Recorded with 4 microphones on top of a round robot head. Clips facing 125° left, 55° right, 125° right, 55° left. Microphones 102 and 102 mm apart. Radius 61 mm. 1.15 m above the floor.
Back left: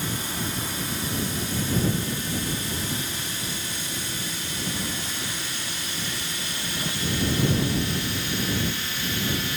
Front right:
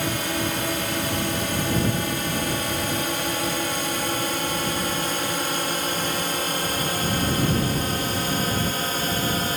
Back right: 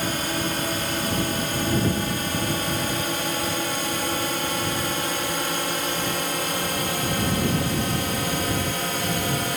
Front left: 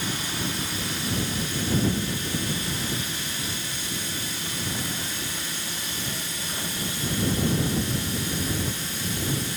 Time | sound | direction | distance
0.0 | a drone | 85° right | ?